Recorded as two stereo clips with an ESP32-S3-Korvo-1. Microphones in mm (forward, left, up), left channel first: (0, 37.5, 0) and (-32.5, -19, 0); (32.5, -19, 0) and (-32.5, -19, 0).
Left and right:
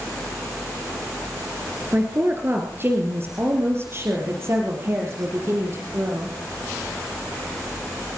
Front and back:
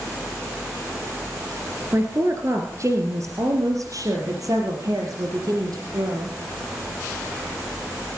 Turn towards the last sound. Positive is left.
turn(degrees=-165)